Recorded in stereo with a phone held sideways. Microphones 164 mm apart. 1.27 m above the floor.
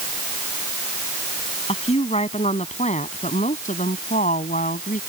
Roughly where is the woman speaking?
Left.